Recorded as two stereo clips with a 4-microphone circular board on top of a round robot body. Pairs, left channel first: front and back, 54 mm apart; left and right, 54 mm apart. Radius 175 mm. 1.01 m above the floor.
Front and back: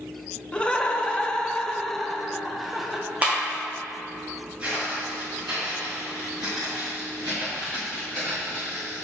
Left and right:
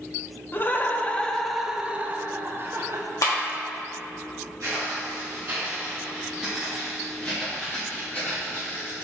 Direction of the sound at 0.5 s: 65° left.